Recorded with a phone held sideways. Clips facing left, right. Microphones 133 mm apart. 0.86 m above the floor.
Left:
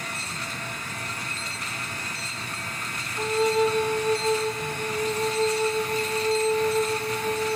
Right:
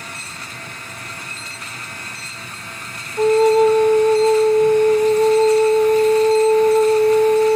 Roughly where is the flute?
Right.